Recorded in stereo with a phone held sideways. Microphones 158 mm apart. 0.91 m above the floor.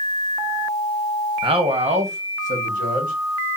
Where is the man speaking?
35° right (ahead or behind), 0.8 m; by 3.1 s 60° right (ahead or behind), 1.5 m.